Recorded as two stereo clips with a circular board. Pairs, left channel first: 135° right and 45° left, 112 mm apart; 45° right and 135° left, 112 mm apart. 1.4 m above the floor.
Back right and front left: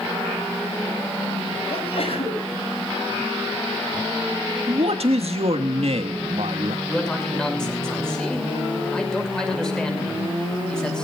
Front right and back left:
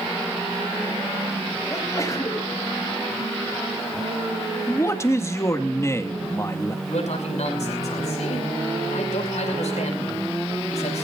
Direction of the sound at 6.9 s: 50° right.